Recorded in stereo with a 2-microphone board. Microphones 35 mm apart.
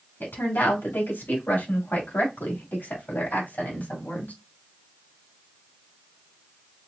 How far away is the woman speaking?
About 3.5 m.